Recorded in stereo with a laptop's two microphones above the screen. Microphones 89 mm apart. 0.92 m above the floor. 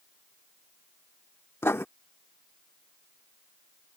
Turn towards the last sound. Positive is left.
turn(degrees=30)  # may be behind; listen again after turning